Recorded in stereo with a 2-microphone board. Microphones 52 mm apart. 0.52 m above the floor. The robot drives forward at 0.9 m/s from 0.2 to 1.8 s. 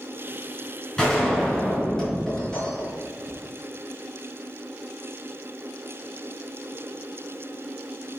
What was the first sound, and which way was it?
A gunshot, 5° left (ahead or behind).